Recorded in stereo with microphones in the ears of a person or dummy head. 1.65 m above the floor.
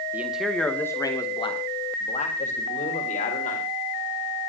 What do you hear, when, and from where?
0.1 s a man speaking: 10° right (ahead or behind), 2 m; by 3.6 s 45° left (ahead or behind), 5 m